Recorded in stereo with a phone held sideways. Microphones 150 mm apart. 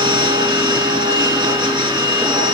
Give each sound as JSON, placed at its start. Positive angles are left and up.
{"t": 0.0, "sound": "a machine running", "side_deg": -30, "distance_m": 3.5}